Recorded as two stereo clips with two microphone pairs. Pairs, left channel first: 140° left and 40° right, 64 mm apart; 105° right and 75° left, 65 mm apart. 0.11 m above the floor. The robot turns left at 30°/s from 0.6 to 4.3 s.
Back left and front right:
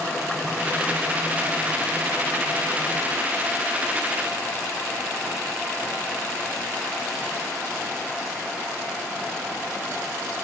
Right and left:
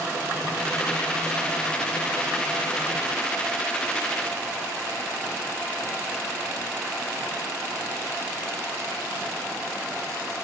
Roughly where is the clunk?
No clunk in this recording.